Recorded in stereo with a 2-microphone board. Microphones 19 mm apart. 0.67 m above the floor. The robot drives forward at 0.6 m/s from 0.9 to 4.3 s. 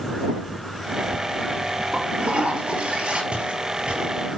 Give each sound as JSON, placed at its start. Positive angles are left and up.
{"t": 1.9, "sound": "a toilet flushing", "side_deg": -85, "distance_m": 5.0}
{"t": 3.3, "sound": "footsteps", "side_deg": -75, "distance_m": 7.0}